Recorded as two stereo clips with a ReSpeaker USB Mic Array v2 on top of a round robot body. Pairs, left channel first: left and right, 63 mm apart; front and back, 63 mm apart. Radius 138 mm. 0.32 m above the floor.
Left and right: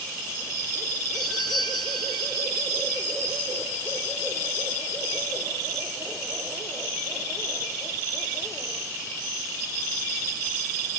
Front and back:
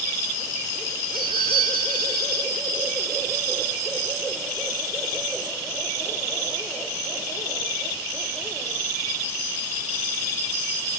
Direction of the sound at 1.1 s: 130° right.